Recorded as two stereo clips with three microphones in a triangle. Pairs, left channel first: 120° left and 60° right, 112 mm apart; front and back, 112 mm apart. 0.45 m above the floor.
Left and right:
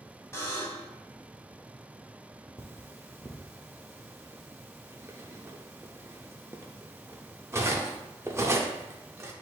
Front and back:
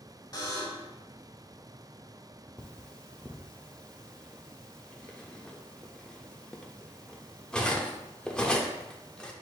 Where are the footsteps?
I don't hear footsteps.